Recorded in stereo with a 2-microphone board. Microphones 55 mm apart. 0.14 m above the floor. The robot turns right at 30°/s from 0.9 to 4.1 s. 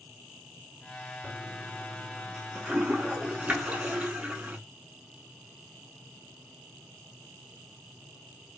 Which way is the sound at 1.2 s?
15° right (ahead or behind).